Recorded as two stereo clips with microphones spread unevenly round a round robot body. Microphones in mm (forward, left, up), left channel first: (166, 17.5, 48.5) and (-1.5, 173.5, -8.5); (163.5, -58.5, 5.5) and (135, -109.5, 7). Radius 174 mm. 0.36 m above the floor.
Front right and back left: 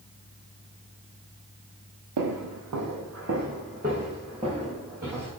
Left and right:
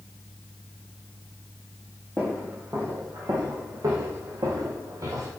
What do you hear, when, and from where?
2.2 s footsteps: 145° left, 0.7 m; by 5.3 s 135° right, 1.6 m